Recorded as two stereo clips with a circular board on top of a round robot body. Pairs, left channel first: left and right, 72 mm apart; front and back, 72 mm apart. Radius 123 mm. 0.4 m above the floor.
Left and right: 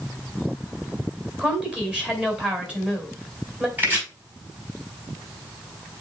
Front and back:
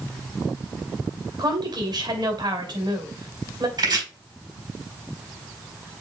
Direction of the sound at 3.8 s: 155° right.